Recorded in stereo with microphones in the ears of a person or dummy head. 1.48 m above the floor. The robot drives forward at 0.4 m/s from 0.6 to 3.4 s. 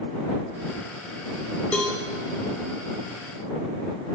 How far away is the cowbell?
About 1.1 m.